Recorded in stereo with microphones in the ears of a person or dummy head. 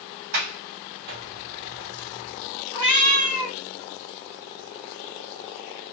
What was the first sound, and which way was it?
A sliding door, 40° right (ahead or behind).